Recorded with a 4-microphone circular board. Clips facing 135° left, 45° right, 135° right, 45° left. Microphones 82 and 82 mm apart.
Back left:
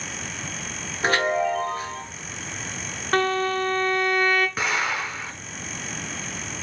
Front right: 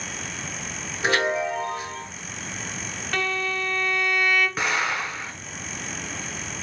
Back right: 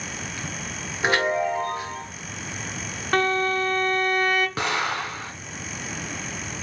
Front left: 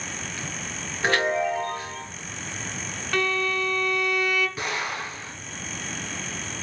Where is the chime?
150° left, 2 m.